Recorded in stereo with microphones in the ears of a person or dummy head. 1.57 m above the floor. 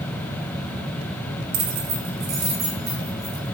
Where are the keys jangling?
35° right (ahead or behind), 0.6 m; by 3.5 s 55° right (ahead or behind), 2.5 m.